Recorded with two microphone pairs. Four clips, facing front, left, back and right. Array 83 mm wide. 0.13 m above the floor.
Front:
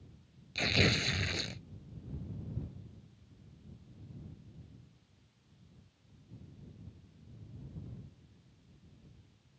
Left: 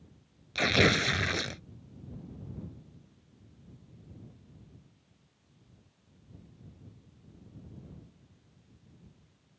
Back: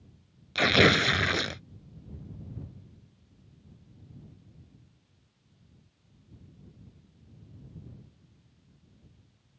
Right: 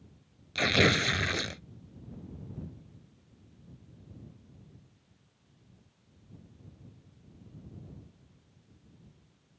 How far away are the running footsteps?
I don't hear running footsteps.